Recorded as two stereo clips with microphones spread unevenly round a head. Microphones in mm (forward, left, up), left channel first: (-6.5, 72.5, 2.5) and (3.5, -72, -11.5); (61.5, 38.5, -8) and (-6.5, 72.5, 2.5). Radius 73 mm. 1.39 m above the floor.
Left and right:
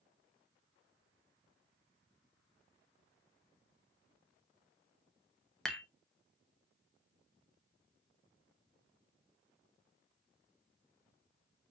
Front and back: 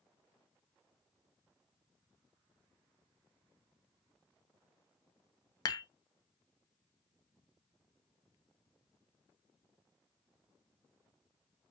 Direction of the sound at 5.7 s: 10° left.